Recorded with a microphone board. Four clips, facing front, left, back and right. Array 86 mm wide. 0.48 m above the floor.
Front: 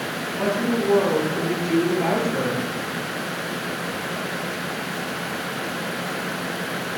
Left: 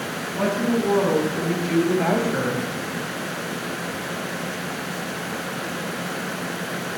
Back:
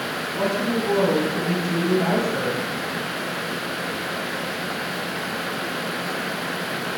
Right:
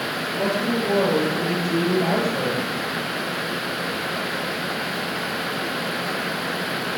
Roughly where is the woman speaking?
Behind left.